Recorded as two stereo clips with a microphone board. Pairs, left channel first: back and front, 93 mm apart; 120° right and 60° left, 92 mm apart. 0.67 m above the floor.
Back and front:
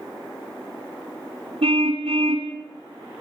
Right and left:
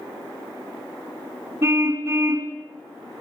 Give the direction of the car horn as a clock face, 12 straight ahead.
12 o'clock.